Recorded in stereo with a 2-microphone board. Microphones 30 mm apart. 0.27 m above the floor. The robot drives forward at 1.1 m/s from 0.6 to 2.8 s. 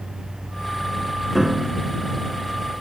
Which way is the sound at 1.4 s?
5° right (ahead or behind).